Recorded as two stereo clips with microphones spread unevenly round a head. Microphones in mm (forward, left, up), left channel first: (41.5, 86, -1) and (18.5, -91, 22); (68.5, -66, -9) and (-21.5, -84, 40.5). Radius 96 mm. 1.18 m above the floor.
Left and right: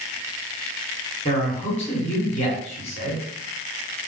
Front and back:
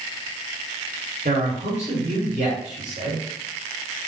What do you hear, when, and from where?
1.2 s a man speaking: 140° left, 2 m